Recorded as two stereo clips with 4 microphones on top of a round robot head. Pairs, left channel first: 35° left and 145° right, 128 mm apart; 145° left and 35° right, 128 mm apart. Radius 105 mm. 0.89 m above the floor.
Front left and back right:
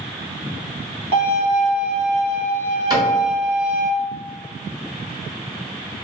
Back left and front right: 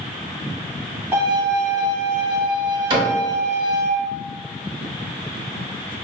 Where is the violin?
110° right, 1.1 m.